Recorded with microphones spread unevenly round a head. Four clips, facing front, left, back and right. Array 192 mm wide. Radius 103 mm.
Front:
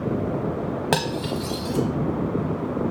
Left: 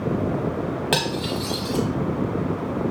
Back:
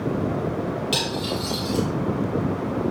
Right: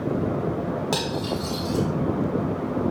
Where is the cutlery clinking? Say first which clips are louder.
Left 2 dB, front 2 dB; 5° left, 0.7 m.